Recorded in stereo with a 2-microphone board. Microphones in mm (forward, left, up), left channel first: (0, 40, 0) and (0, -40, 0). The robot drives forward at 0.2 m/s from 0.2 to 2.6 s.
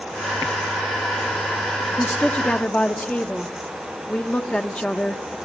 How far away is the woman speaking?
About 0.9 m.